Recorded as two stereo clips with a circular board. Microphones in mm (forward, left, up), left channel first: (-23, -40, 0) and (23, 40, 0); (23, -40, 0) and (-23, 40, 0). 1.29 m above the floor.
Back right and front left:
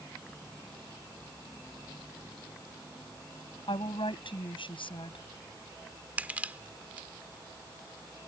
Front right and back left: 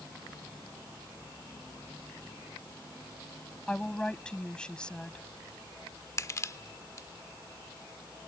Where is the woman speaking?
140° right.